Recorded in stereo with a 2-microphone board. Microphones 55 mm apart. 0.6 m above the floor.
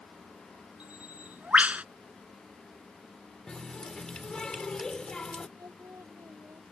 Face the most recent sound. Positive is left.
turn(degrees=-60)  # may be behind; listen again after turning